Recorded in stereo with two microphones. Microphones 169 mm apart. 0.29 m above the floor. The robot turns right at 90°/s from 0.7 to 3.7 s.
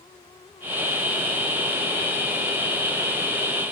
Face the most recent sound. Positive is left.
No sound to turn to.